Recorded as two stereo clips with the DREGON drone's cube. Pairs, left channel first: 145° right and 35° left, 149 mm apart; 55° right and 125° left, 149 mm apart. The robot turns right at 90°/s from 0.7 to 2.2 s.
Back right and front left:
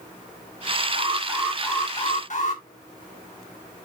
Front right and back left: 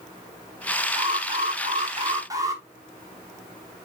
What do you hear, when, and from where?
0.9 s an alarm: 75° left, 3.5 m; by 2.6 s 170° right, 3.5 m